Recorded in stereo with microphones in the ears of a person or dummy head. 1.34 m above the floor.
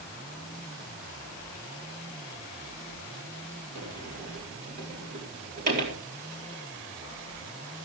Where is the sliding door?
50° right (ahead or behind), 4 m.